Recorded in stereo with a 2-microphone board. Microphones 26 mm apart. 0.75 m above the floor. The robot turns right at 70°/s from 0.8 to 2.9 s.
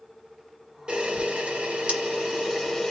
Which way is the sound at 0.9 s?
135° right.